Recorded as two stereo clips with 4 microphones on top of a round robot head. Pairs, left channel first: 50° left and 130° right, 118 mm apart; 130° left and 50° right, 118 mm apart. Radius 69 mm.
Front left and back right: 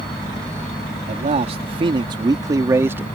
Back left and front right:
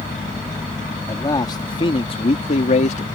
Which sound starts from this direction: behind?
A man speaking, at 1.1 s.